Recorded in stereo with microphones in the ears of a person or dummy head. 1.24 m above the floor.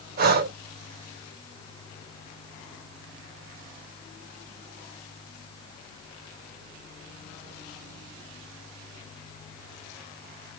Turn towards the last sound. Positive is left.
turn(degrees=-50)  # may be behind; listen again after turning